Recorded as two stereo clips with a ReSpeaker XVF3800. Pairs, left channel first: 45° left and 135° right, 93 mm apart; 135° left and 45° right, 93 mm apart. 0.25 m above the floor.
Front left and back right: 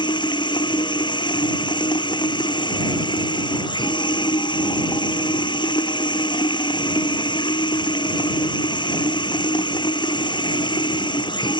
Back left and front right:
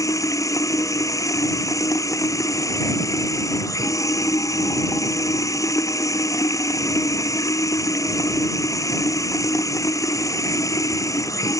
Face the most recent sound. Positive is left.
turn(degrees=80)